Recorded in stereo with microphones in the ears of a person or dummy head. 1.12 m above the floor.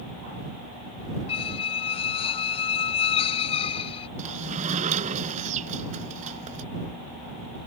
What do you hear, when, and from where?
1.3 s a squeak: 30° left (ahead or behind)
4.2 s a sliding door: 40° right (ahead or behind)